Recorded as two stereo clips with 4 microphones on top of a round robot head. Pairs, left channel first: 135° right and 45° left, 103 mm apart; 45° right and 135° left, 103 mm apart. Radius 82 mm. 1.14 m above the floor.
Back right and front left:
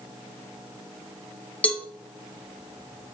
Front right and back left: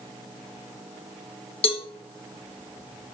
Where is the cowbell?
60° right, 1.5 m.